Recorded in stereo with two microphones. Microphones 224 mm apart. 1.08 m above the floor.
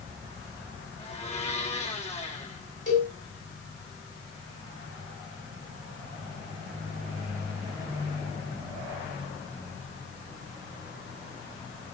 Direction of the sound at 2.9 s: 50° left (ahead or behind).